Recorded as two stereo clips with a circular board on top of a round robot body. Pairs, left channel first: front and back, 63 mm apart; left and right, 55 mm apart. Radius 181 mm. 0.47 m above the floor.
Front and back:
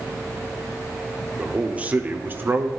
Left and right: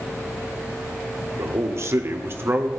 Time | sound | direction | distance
1.4 | a man speaking | 105° right | 1.8 m